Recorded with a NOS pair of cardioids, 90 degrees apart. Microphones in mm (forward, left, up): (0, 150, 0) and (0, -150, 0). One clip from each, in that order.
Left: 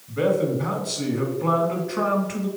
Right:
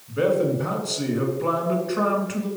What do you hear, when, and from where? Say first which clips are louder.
0.1 s a man speaking: right 1 dB; straight ahead, 2.5 m